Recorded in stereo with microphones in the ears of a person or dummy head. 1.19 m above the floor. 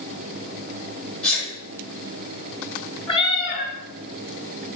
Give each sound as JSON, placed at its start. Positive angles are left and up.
{"t": 1.2, "sound": "a sneeze", "side_deg": 10, "distance_m": 4.5}
{"t": 3.1, "sound": "a cat meowing", "side_deg": 20, "distance_m": 2.5}